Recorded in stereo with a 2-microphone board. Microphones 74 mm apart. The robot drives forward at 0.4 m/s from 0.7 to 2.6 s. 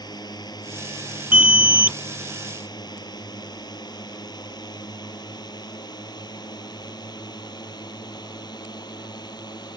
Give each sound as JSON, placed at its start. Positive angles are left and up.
{"t": 0.0, "sound": "a drone", "side_deg": 65}
{"t": 1.3, "sound": "an alarm", "side_deg": -20}